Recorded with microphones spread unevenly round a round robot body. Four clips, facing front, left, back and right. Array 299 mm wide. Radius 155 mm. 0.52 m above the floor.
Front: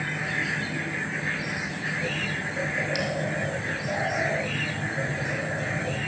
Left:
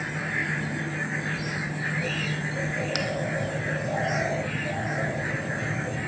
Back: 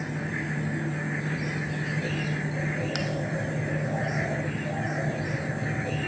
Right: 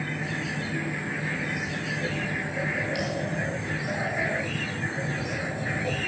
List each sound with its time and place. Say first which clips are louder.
3.0 s a bell: even, front 2 dB; 125° left, 1.8 m